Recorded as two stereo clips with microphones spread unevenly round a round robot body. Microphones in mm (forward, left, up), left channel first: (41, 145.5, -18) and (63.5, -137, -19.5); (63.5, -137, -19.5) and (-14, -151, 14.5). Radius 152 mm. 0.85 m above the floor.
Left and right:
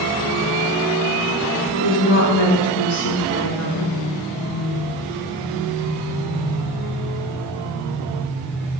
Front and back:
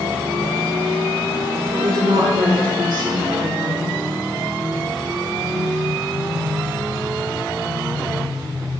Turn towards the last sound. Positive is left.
turn(degrees=120)